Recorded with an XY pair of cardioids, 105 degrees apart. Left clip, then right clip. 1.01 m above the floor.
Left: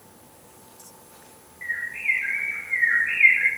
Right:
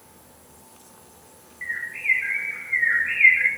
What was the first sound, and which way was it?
A bird, 25° right.